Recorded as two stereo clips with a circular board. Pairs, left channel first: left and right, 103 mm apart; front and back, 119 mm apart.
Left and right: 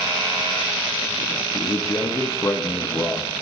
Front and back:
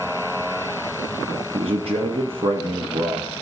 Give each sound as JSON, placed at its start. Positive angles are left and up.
{"t": 1.5, "sound": "a man speaking", "azimuth_deg": 150, "distance_m": 0.9}